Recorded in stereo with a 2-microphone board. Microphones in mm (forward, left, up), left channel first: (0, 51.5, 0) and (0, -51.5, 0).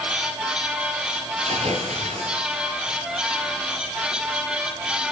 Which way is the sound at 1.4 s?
85° right.